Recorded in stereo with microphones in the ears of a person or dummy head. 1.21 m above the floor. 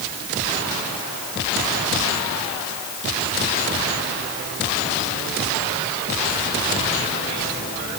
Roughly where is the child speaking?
No child speaking in this recording.